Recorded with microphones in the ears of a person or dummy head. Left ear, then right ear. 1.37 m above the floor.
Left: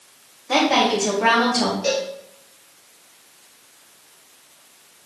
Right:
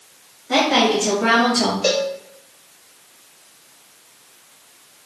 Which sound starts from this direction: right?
A cowbell, at 1.8 s.